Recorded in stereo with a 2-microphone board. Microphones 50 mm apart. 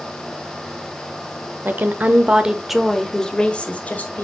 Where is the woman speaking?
45° right (ahead or behind), 1.1 m; by 4.2 s 35° left (ahead or behind), 1.7 m.